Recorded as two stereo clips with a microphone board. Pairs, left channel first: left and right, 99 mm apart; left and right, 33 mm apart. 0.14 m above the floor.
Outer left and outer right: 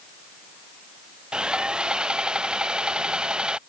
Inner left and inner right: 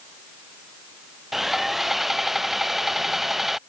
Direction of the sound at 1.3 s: 10° right (ahead or behind).